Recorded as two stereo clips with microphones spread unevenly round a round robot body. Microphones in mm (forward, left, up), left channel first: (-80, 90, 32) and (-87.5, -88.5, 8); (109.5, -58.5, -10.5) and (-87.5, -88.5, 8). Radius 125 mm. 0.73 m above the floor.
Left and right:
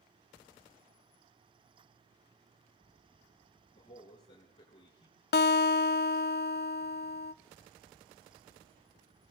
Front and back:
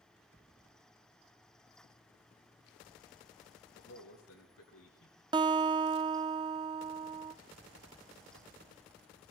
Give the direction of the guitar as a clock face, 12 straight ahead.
8 o'clock.